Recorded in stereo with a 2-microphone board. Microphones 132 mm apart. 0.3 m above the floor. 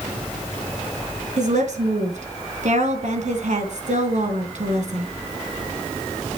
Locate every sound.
1.4 s a woman speaking: 65° right (ahead or behind), 3 m